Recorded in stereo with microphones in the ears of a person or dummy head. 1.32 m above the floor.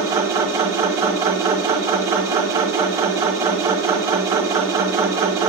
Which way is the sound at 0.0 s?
25° right (ahead or behind).